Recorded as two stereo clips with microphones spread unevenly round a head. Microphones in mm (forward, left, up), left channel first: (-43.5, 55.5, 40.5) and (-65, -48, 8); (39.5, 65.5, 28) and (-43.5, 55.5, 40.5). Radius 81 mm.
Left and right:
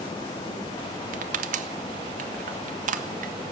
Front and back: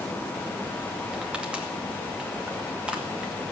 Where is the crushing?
90° right, 0.7 m.